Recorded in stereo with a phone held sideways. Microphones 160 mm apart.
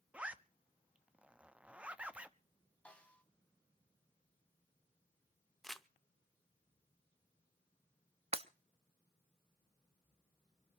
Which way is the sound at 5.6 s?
Centre (ahead or behind).